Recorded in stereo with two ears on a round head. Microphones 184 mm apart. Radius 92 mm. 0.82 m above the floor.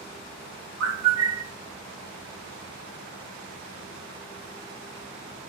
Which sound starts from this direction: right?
A bird, at 0.8 s.